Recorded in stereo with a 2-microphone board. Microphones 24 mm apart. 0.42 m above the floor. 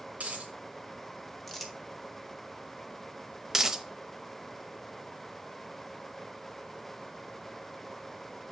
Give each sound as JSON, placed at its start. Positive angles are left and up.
{"t": 0.1, "sound": "a dropped coin", "side_deg": -70, "distance_m": 2.0}
{"t": 1.5, "sound": "crumpling", "side_deg": 5, "distance_m": 1.2}
{"t": 3.5, "sound": "a dropped coin", "side_deg": -20, "distance_m": 0.7}